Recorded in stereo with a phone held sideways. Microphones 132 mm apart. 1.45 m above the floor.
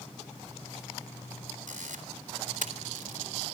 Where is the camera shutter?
75° right (ahead or behind), 3.5 m.